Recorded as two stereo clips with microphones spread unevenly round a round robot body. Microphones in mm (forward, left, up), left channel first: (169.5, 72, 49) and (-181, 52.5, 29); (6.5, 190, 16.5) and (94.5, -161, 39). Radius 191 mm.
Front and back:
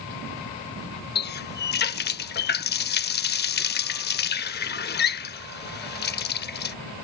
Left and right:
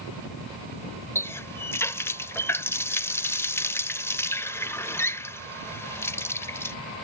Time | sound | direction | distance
1.1 | a running tap | 35° left | ?